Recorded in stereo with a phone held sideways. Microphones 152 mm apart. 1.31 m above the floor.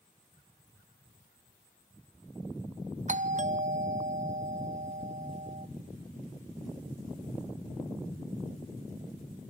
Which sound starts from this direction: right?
A doorbell, at 3.1 s.